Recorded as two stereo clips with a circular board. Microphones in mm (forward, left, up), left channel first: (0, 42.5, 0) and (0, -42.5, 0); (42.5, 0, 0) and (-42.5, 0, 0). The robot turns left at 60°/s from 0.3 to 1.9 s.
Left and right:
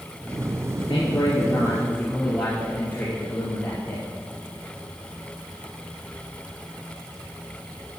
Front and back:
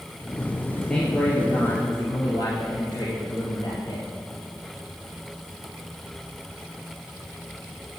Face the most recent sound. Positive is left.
turn(degrees=25)